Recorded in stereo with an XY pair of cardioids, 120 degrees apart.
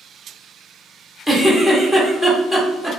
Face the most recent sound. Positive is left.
turn(degrees=0)